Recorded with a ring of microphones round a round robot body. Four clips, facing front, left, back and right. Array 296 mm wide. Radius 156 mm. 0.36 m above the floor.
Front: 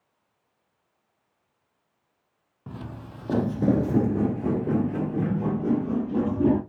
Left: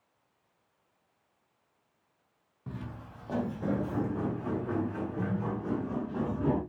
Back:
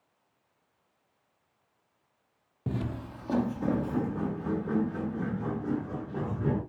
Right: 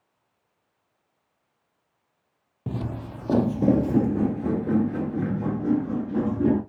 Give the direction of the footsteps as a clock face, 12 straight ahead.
4 o'clock.